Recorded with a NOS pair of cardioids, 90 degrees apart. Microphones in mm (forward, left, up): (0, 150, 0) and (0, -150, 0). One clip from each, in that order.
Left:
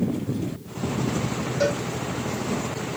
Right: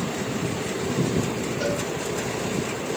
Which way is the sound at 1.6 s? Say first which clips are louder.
Left 4 dB; 40° left.